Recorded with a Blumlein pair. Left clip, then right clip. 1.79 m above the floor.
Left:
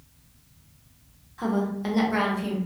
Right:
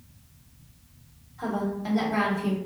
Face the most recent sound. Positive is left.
turn(degrees=15)